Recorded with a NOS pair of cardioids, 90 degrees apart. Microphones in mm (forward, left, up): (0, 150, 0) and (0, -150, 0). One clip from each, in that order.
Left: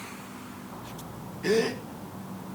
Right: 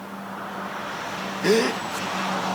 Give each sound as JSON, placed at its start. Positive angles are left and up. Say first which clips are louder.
{"t": 1.4, "sound": "a gasp", "louder": "right 5 dB", "azimuth_deg": -40, "distance_m": 1.6}